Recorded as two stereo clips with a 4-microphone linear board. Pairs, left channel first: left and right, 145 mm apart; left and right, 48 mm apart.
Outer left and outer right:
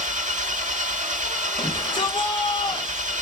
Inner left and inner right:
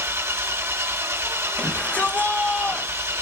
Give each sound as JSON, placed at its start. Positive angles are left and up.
{"t": 0.0, "sound": "an engine running", "side_deg": -60, "distance_m": 0.8}
{"t": 1.6, "sound": "a shout", "side_deg": 35, "distance_m": 3.0}